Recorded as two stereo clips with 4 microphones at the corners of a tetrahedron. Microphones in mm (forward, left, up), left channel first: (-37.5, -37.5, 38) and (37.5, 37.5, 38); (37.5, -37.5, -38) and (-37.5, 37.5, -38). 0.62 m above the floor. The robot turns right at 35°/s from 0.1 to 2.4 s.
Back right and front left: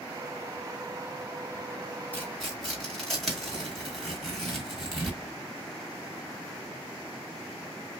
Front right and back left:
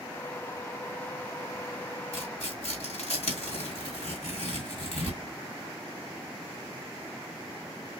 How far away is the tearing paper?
About 2 m.